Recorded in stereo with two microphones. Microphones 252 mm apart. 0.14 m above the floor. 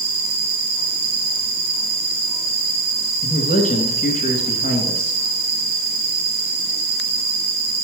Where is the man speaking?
30° left (ahead or behind), 1.4 m.